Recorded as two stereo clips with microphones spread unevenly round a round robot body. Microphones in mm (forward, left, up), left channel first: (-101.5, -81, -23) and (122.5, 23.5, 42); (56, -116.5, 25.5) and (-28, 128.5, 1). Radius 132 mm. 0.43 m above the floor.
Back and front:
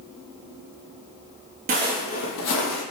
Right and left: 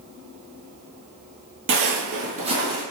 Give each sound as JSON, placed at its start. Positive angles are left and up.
{"t": 1.7, "sound": "footsteps", "azimuth_deg": 65, "distance_m": 0.7}